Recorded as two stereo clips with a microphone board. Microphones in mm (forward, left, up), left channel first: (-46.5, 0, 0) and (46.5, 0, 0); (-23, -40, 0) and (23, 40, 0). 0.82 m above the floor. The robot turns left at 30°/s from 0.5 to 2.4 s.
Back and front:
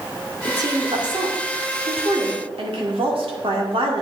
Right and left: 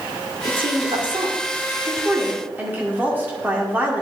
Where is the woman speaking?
45° left, 2.0 m; by 4.0 s 10° right, 2.0 m.